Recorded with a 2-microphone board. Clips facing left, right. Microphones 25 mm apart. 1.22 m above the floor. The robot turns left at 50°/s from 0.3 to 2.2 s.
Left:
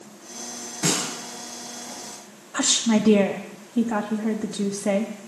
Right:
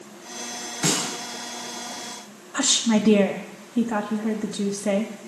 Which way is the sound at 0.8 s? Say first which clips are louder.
Even; 5° right (ahead or behind).